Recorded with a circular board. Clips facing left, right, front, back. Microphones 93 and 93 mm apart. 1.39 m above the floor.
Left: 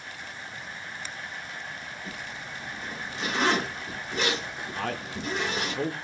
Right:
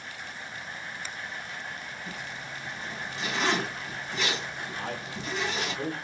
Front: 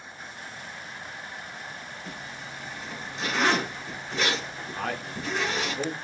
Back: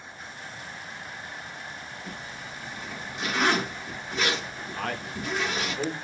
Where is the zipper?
95° left, 1.2 m.